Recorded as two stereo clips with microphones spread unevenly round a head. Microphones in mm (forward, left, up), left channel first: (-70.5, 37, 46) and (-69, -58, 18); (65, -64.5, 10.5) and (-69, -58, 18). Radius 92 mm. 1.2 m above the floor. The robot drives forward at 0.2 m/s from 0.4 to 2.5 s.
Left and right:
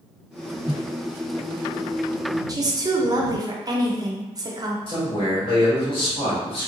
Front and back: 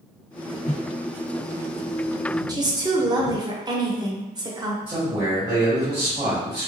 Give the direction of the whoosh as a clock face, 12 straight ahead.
12 o'clock.